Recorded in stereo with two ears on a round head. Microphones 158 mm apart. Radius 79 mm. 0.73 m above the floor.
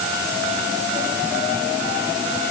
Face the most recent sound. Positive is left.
No sound to turn to.